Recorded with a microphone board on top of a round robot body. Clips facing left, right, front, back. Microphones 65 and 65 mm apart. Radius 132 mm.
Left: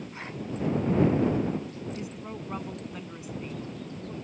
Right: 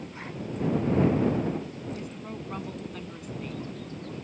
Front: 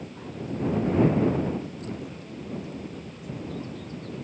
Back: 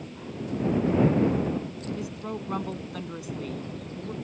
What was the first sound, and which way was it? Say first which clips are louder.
A woman speaking: even, back 4 dB; 170° left.